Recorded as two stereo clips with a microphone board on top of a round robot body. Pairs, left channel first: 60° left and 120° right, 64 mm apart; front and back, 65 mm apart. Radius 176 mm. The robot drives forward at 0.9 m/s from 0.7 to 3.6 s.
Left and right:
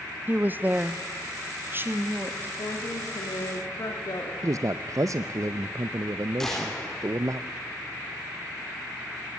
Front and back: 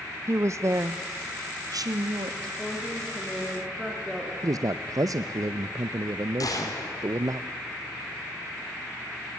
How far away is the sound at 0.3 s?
About 1.0 m.